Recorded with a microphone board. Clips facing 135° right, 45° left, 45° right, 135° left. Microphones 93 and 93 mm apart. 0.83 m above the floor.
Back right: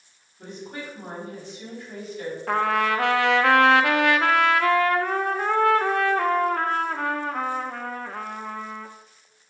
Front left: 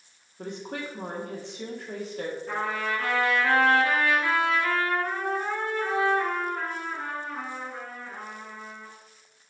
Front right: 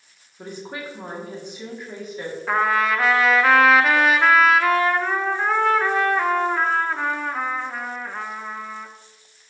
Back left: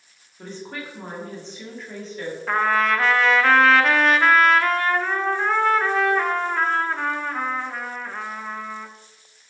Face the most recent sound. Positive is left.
turn(degrees=-130)